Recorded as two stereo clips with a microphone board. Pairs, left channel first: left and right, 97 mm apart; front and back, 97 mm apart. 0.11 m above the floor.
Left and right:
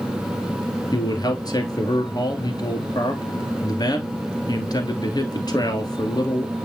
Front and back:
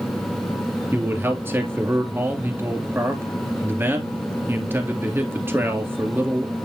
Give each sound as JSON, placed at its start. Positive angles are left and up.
{"t": 0.9, "sound": "a man speaking", "azimuth_deg": 120, "distance_m": 2.0}